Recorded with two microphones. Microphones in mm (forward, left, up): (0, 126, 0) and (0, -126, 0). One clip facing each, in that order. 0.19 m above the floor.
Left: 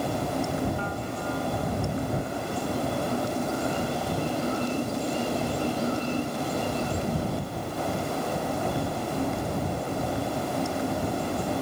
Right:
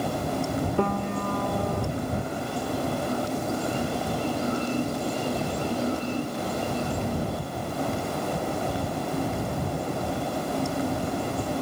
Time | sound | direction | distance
0.8 | a piano | 70° right (ahead or behind) | ?